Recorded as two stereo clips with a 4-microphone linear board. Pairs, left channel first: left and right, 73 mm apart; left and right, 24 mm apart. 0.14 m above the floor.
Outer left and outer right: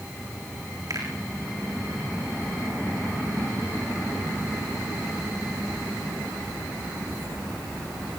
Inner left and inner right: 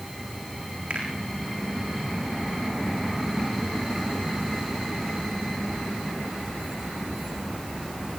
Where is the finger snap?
60° right (ahead or behind), 7 m.